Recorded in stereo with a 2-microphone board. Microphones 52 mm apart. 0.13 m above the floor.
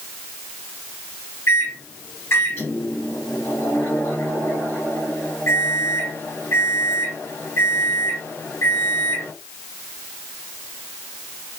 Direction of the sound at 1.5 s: 55° left (ahead or behind).